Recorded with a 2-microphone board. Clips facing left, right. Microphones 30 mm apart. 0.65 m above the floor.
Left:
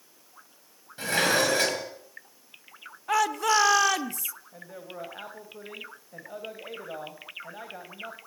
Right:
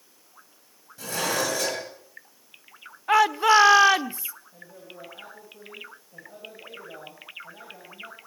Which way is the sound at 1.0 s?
40° left (ahead or behind).